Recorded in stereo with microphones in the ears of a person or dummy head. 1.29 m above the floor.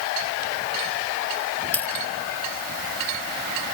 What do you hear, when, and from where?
1.7 s a dropped coin: 10° left (ahead or behind)